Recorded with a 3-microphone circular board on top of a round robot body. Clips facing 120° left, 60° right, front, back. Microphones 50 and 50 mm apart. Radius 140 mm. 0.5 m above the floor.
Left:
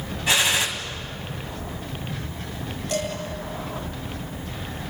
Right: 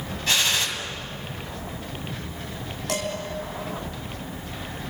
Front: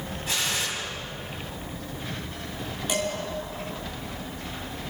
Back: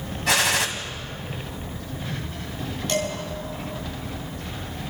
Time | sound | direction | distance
0.3 | a gunshot | 160° right | 1.9 m
2.9 | dishes clattering | 80° right | 4 m